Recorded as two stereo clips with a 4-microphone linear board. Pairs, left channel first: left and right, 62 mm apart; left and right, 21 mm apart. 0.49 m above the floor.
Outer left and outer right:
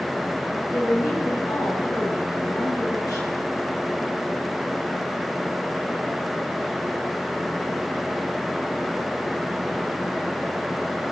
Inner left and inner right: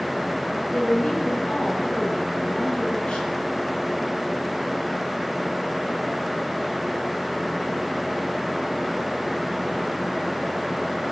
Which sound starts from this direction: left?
A woman speaking, at 0.7 s.